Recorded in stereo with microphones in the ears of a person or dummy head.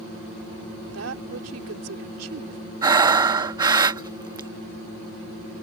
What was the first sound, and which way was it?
A woman speaking, 80° right.